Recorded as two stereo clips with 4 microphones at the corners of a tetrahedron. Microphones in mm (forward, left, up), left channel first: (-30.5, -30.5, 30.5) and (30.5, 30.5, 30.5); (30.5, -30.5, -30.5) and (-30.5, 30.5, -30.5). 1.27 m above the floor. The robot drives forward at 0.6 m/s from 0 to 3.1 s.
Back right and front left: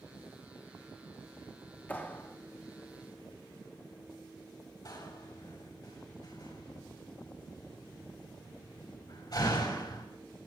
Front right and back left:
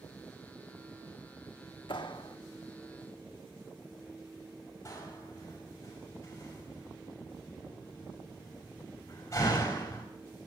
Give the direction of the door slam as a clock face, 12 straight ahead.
3 o'clock.